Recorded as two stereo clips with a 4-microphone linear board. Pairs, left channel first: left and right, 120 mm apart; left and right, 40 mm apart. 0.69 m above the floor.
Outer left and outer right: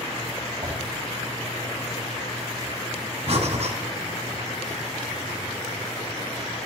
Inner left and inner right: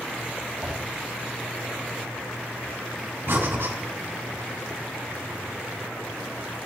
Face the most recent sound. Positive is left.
turn(degrees=-65)  # may be behind; listen again after turning